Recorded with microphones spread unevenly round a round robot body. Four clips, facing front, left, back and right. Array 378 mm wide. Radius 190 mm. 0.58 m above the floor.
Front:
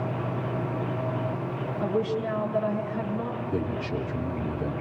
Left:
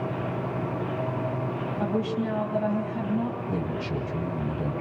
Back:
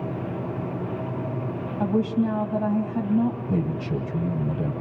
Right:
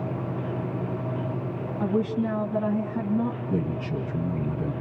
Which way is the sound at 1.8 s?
170° right.